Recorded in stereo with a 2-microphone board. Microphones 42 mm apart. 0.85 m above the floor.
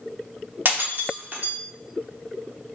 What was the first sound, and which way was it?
Breaking glass, 50° right (ahead or behind).